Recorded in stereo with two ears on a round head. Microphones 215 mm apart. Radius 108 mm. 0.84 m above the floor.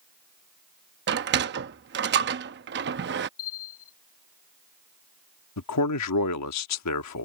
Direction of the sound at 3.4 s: 65° left (ahead or behind).